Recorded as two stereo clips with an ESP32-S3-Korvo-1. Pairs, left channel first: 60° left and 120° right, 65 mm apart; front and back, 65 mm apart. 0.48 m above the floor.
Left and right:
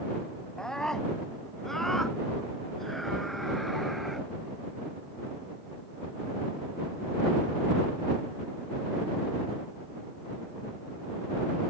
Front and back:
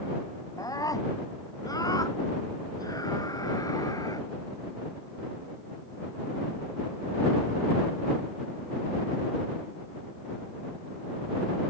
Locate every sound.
0.6 s a scream: 20° right; by 4.3 s 30° right